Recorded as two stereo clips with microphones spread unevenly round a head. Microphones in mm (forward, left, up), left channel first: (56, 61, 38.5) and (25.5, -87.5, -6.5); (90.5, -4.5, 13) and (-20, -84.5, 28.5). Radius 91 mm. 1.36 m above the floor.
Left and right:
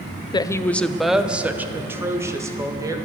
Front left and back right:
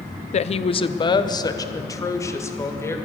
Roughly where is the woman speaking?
Ahead.